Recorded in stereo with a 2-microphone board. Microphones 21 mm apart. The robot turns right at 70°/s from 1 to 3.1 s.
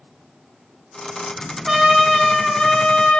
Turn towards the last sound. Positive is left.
turn(degrees=80)